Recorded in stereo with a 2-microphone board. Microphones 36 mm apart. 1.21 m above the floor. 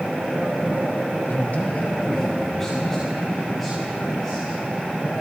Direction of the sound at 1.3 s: 50° left (ahead or behind).